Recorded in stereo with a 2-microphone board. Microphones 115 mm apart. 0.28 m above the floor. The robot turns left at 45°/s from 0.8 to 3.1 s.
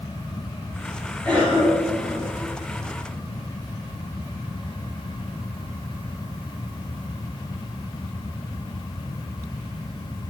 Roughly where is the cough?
Centre.